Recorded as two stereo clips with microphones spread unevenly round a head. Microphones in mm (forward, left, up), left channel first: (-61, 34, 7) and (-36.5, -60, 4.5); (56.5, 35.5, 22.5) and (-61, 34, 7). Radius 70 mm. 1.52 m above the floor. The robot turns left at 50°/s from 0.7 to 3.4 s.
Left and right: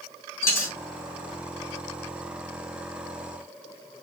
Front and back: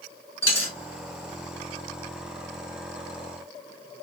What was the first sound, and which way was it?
A dropped coin, 55° left.